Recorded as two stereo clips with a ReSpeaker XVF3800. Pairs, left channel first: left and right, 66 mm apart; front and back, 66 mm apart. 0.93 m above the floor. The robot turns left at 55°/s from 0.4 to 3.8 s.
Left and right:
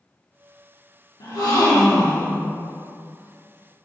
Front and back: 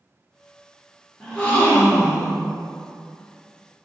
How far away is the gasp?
About 1.2 m.